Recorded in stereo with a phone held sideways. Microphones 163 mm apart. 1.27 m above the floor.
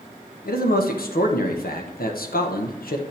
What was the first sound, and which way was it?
A man speaking, 75° left (ahead or behind).